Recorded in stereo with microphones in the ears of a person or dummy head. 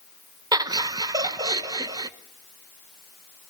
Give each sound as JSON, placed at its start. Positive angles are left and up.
{"t": 0.5, "sound": "laughter", "side_deg": -20, "distance_m": 1.1}